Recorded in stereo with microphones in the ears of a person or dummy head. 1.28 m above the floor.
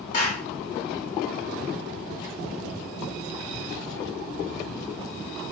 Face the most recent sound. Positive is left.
turn(degrees=70)  # may be behind; listen again after turning